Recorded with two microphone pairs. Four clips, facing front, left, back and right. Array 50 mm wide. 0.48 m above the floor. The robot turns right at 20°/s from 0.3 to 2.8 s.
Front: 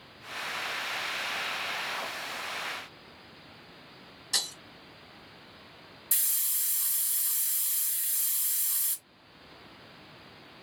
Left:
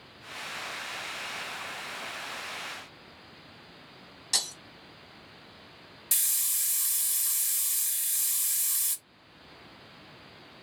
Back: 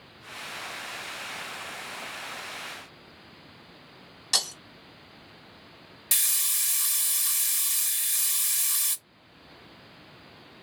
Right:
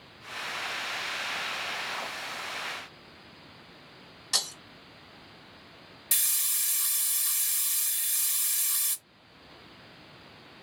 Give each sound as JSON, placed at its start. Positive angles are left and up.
{"t": 4.3, "sound": "breaking glass", "azimuth_deg": 180, "distance_m": 2.0}
{"t": 6.1, "sound": "a hiss", "azimuth_deg": -175, "distance_m": 0.6}